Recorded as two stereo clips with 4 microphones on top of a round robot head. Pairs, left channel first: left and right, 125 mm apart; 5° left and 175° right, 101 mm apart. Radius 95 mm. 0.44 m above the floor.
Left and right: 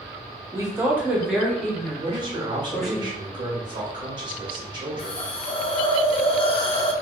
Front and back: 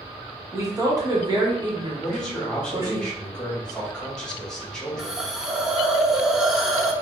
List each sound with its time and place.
0.5 s a woman speaking: 135° right, 0.9 m; by 3.0 s 155° left, 1.6 m
2.0 s a man speaking: 75° right, 1.2 m
5.0 s a hiss: 100° left, 0.6 m